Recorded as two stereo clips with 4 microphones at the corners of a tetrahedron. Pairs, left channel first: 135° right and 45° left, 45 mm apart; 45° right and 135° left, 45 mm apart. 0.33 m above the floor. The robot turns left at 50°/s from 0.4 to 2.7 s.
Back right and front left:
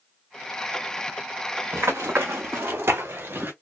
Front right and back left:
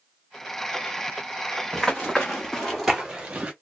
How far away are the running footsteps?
About 1.2 m.